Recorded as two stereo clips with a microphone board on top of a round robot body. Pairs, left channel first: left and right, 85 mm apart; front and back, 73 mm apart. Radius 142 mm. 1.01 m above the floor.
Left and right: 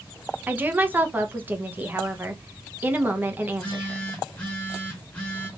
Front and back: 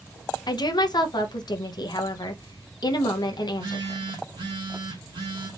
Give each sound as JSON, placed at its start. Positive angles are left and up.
{"t": 0.5, "sound": "a woman speaking", "azimuth_deg": -20, "distance_m": 0.9}
{"t": 3.5, "sound": "a phone buzzing", "azimuth_deg": 165, "distance_m": 1.0}